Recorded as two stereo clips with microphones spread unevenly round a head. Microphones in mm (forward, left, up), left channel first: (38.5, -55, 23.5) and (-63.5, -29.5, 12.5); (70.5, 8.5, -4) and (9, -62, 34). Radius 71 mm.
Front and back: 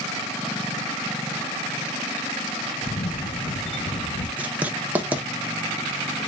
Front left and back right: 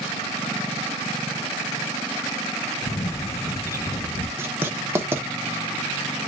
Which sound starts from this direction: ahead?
A camera shutter, at 2.8 s.